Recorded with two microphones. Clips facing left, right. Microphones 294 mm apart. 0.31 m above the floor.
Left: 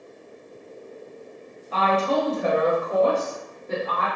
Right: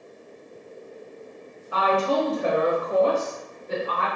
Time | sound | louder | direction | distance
1.7 | a woman speaking | even | 15° right (ahead or behind) | 1.4 m